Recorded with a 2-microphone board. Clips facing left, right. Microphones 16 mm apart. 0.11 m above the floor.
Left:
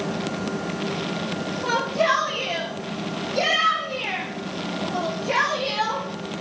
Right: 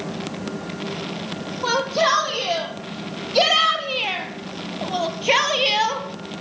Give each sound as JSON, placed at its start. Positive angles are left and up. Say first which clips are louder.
{"t": 1.6, "sound": "a shout", "louder": "right 2 dB", "side_deg": -55, "distance_m": 5.0}